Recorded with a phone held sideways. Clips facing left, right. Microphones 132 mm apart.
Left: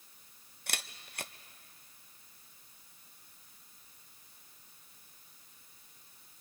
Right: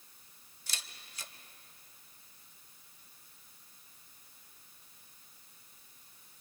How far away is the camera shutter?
About 0.7 m.